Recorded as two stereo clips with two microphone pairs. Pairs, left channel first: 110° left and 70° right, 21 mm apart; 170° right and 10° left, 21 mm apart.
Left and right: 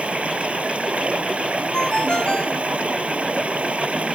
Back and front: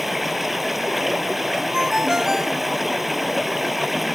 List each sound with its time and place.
0.0 s running water: 75° right
1.7 s a ringtone: 70° left